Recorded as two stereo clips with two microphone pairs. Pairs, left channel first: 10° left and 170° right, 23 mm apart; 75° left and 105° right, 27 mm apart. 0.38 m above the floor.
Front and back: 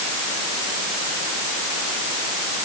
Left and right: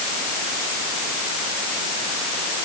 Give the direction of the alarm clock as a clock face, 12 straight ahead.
No alarm clock in this recording.